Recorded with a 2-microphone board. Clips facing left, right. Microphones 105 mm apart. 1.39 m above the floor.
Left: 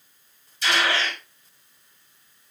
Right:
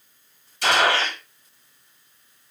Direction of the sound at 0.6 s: 65° right (ahead or behind).